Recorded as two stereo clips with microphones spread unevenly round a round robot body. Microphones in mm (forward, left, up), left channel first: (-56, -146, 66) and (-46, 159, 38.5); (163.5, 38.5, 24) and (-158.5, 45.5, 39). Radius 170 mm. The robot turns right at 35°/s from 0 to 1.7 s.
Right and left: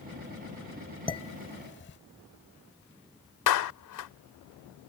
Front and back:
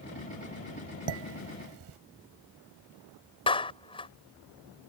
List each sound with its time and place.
1.1 s dishes clattering: 170° right; by 2.0 s 145° right
3.5 s a clap: 75° right